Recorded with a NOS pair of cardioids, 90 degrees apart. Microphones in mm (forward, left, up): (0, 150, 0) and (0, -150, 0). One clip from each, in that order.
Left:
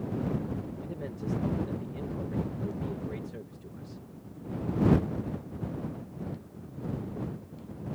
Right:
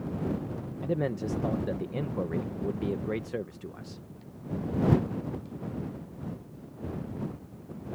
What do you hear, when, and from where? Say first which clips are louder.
0.8 s a man speaking: right 8 dB; 70° right